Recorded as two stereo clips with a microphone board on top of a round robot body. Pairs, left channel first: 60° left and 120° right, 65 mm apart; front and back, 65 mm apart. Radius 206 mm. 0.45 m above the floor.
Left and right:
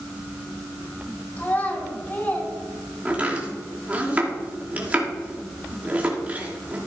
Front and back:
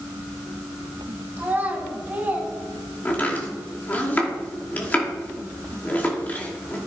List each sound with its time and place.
1.4 s a child speaking: 115° left, 5 m
3.0 s chopping: 60° right, 2.5 m